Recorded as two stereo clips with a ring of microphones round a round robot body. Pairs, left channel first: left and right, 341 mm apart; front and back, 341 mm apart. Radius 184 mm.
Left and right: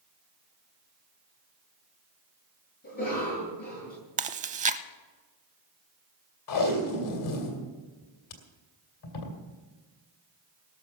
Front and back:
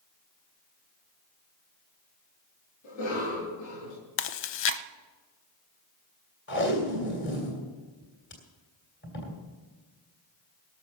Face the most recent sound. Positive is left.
turn(degrees=60)